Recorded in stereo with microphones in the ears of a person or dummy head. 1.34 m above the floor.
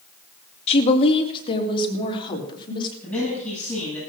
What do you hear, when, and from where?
0.7 s a woman speaking: 35° left (ahead or behind), 2 m; by 2.9 s 25° left (ahead or behind), 4 m
3.0 s a man speaking: 5° left (ahead or behind), 10 m